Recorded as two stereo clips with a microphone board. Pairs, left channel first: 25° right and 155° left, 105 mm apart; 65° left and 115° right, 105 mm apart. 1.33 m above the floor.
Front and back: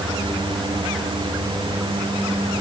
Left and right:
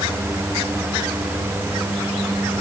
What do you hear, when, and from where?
Only background noise.